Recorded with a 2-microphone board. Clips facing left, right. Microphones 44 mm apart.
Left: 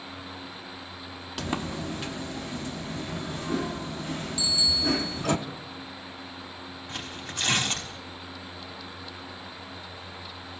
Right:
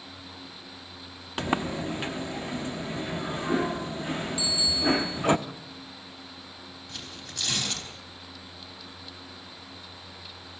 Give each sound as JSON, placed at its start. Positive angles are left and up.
{"t": 1.4, "sound": "a sliding door", "side_deg": -25, "distance_m": 0.9}
{"t": 4.4, "sound": "a bicycle bell", "side_deg": -20, "distance_m": 10.0}
{"t": 6.9, "sound": "tearing paper", "side_deg": 35, "distance_m": 5.0}